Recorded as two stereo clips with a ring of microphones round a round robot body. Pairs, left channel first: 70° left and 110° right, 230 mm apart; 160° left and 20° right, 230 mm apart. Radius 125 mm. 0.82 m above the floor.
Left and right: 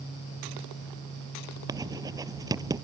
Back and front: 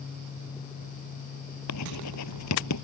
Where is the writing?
170° left.